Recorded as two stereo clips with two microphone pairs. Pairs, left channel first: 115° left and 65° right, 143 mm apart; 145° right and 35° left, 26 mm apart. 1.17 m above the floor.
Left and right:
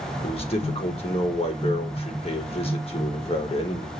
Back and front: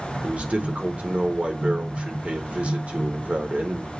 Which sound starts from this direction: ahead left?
A man speaking, at 0.2 s.